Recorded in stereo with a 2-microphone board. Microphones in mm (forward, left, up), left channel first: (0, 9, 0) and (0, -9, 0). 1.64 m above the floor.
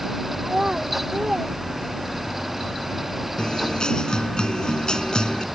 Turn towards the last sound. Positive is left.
turn(degrees=60)  # may be behind; listen again after turning